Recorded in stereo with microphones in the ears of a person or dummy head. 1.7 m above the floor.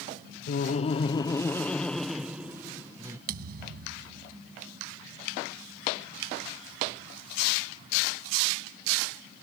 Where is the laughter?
50° left (ahead or behind); by 3.2 s 15° right (ahead or behind).